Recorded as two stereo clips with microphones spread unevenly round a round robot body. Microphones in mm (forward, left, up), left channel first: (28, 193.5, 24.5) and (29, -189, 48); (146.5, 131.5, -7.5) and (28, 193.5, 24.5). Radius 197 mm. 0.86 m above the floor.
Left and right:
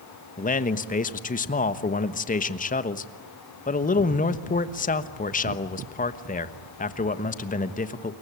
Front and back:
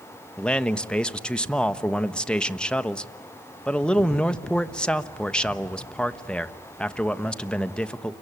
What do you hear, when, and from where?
0.4 s a man speaking: 35° left, 1.2 m